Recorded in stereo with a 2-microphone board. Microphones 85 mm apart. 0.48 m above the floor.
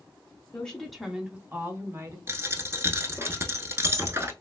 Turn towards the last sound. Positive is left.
turn(degrees=-30)  # may be behind; listen again after turning